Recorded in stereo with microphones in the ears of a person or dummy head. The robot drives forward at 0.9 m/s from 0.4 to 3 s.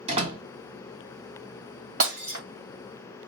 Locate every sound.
0.1 s a door slam: 40° right (ahead or behind), 2.5 m
2.0 s breaking glass: 50° right (ahead or behind), 2.5 m; by 2.4 s 45° right (ahead or behind), 2.5 m